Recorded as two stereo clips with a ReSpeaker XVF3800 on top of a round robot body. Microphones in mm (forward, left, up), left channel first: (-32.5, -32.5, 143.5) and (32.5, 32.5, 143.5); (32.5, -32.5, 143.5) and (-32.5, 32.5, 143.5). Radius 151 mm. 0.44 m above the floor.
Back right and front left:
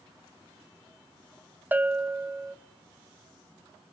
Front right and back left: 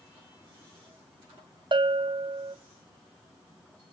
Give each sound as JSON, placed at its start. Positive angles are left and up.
{"t": 1.7, "sound": "a bell", "azimuth_deg": 115, "distance_m": 0.8}